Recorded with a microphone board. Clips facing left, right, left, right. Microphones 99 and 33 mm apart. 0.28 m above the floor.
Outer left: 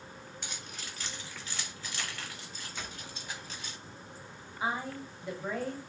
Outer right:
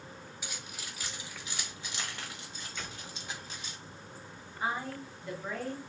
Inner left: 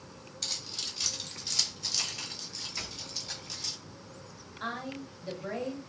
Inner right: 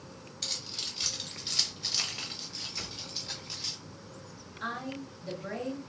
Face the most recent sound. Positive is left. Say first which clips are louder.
# even, even
turn(degrees=15)  # may be behind; listen again after turning